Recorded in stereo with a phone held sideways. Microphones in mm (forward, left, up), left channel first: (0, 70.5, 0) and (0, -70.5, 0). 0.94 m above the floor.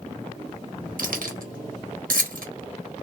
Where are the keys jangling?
80° right, 0.9 m.